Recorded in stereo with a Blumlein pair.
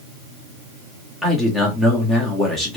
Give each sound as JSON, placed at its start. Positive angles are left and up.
{"t": 1.2, "sound": "a man speaking", "azimuth_deg": 5, "distance_m": 1.7}